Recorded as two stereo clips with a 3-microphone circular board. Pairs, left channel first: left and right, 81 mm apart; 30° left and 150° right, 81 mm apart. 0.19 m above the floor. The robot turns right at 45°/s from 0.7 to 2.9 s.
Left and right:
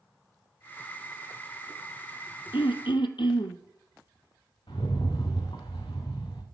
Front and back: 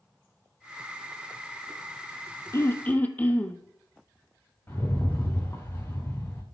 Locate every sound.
2.5 s throat clearing: 85° left, 1.1 m; by 3.6 s 100° left, 1.1 m
4.7 s a rattle: 90° left, 4 m